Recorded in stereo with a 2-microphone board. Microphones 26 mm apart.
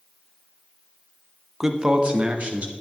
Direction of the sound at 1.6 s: 15° right (ahead or behind).